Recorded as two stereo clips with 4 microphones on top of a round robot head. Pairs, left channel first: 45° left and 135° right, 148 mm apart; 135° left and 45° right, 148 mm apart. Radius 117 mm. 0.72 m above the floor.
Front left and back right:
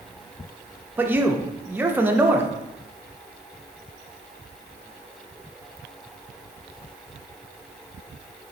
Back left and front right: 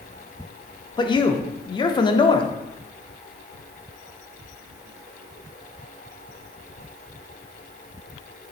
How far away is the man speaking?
About 0.5 m.